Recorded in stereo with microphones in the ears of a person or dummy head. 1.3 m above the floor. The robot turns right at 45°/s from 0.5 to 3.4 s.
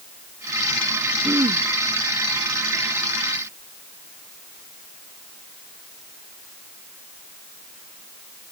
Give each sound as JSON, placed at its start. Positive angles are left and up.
{"t": 1.2, "sound": "throat clearing", "side_deg": -5}